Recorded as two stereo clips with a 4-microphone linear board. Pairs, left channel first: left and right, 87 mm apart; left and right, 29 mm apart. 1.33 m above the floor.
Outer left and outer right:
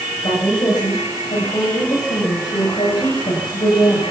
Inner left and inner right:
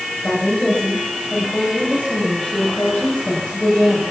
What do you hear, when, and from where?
0.2 s a woman speaking: 60° left (ahead or behind), 9 m; by 4.0 s 85° left, 9 m